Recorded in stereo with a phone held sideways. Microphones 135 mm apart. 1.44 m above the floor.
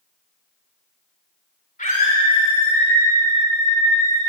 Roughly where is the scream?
Left.